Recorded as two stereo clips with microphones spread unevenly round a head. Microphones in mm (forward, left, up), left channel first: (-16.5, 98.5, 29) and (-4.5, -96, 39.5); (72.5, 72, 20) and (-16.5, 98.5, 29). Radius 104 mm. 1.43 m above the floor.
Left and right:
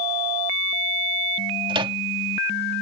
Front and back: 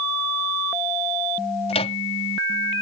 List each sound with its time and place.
1.7 s a microwave: 20° right